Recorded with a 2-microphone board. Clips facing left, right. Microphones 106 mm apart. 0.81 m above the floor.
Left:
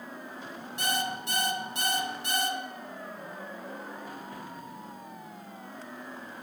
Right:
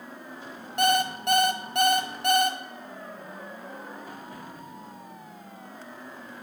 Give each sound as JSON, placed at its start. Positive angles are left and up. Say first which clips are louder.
{"t": 0.8, "sound": "an alarm clock", "louder": "right 8 dB", "side_deg": -60, "distance_m": 0.7}